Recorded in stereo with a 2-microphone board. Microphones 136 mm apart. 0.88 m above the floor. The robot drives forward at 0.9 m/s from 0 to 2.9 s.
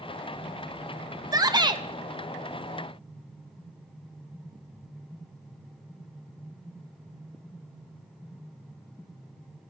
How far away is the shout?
About 1.1 m.